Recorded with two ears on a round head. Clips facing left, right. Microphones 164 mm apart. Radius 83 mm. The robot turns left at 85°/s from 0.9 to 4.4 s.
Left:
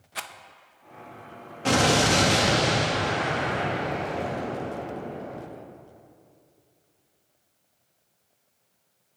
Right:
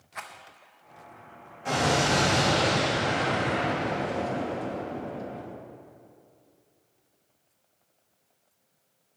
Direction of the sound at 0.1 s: 40° left (ahead or behind).